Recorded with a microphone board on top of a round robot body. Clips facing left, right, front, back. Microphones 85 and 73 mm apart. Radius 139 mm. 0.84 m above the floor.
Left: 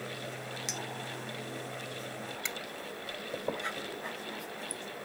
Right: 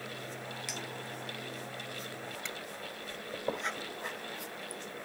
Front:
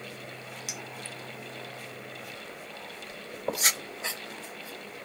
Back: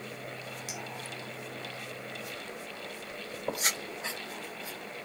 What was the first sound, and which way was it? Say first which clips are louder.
A clink: left 1 dB, even; 25° left.